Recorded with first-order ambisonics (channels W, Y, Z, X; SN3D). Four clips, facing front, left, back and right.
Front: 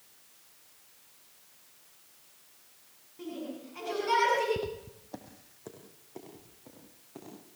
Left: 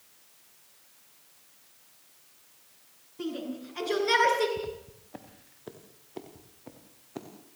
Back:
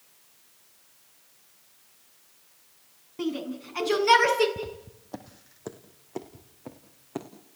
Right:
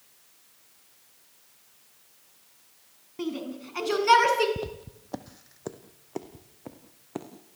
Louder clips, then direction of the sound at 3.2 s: Right 2 dB, back 8 dB; 140° right.